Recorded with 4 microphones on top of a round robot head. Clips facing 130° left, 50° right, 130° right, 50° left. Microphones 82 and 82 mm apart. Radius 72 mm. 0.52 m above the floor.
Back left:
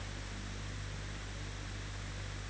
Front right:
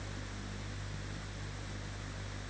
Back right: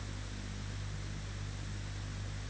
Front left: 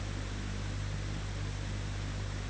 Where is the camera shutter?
I don't hear a camera shutter.